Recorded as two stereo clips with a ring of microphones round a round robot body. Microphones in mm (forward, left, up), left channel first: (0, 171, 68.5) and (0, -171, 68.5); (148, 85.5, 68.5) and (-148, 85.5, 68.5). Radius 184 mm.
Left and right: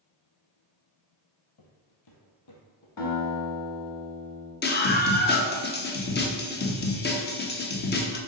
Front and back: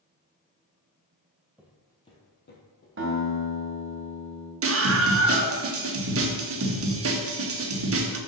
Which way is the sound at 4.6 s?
145° left.